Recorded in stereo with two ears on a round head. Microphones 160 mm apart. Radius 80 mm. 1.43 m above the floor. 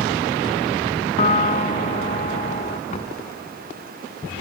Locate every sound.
1.2 s a piano: 35° left (ahead or behind)
2.9 s knocking: 35° left (ahead or behind)